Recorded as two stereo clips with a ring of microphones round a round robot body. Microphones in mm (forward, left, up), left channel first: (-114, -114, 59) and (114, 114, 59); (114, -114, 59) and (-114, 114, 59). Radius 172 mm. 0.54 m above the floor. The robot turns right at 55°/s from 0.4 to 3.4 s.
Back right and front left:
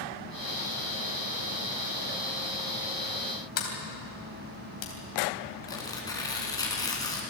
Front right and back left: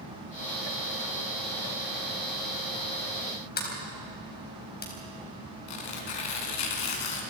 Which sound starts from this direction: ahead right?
Tearing paper, at 5.7 s.